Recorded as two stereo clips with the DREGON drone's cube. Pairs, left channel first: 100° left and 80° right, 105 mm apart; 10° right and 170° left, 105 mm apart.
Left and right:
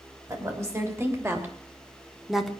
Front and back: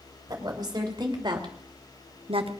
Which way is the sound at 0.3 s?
140° right.